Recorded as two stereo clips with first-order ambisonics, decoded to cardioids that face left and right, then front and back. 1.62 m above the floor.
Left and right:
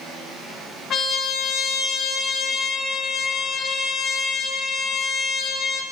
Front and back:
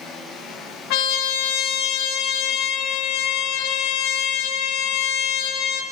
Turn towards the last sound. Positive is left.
turn(degrees=25)